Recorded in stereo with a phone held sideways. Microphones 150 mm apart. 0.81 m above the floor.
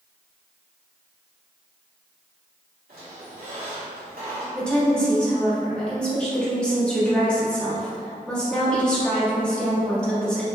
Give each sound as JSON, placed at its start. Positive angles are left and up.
{"t": 2.9, "sound": "a squeak", "side_deg": -75, "distance_m": 1.8}
{"t": 4.5, "sound": "a woman speaking", "side_deg": 5, "distance_m": 1.2}